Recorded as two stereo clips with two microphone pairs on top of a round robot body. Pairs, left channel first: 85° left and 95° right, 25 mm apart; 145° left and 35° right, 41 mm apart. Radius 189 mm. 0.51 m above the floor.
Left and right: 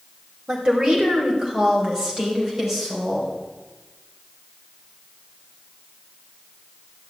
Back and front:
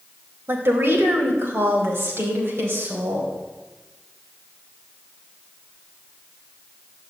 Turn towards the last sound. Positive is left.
turn(degrees=-15)